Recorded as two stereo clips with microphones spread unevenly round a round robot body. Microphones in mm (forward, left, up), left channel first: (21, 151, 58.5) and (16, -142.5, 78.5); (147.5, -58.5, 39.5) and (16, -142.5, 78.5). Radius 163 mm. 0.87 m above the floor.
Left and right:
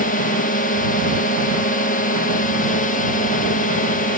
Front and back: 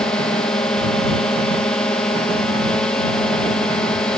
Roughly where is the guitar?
No guitar in this recording.